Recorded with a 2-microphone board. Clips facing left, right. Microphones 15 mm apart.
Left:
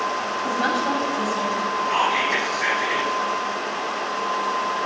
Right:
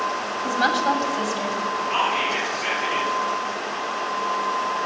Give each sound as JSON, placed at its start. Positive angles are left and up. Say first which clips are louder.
{"t": 0.4, "sound": "a woman speaking", "louder": "right 3 dB", "side_deg": -40, "distance_m": 2.5}
{"t": 1.9, "sound": "whispering", "louder": "left 2 dB", "side_deg": 65, "distance_m": 7.0}